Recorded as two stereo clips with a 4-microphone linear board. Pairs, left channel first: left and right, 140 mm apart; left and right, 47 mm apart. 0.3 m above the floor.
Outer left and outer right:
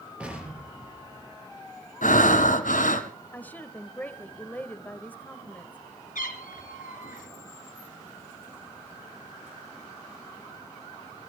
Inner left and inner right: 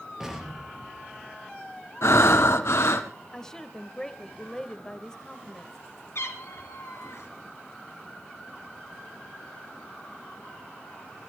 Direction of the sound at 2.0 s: 75° left (ahead or behind).